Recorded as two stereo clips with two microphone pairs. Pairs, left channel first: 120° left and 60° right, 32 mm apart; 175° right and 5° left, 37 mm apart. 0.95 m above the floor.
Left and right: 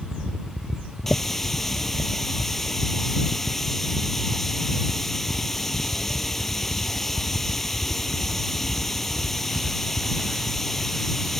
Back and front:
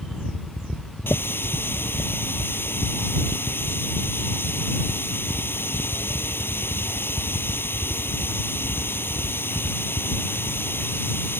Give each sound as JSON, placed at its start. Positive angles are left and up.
{"t": 1.1, "sound": "a running tap", "azimuth_deg": -165}